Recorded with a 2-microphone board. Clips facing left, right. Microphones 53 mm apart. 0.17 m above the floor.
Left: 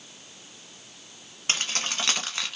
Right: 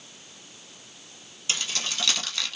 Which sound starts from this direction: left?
Keys jangling, at 1.5 s.